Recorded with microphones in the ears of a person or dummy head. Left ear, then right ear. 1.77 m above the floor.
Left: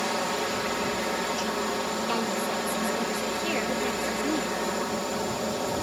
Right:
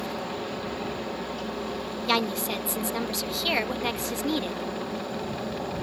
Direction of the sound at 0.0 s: 55° left (ahead or behind).